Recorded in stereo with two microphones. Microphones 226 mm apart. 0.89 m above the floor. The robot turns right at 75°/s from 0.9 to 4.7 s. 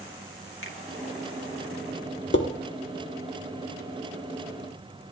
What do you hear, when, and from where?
0.6 s a finger snap: 65° left (ahead or behind), 1.4 m
2.3 s dishes clattering: 55° left (ahead or behind), 1.4 m; by 2.5 s 65° left (ahead or behind), 1.4 m